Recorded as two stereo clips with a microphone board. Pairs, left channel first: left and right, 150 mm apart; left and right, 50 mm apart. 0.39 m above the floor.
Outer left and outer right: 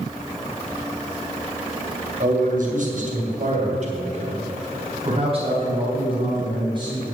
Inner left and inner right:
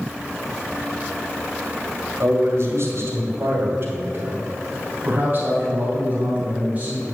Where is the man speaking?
60° right (ahead or behind), 2.5 m; by 7.0 s 30° right (ahead or behind), 4.5 m.